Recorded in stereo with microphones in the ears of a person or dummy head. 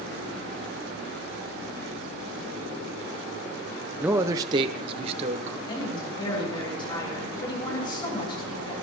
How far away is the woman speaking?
About 7.5 m.